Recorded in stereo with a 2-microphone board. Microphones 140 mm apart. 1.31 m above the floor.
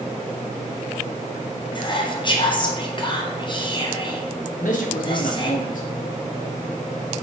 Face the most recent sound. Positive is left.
turn(degrees=70)  # may be behind; listen again after turning